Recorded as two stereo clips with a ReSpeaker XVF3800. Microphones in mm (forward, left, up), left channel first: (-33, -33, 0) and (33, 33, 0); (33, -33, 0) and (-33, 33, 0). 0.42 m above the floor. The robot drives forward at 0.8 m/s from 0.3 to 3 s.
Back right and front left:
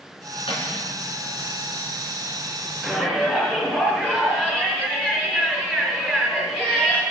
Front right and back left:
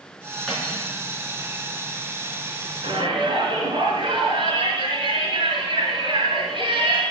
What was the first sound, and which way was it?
Cutlery clinking, 130° right.